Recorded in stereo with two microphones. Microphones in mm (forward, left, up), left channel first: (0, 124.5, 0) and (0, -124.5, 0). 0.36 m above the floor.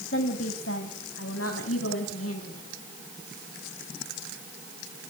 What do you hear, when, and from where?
0.1 s a woman speaking: 55° left (ahead or behind), 2 m; by 2.6 s 60° left (ahead or behind), 3 m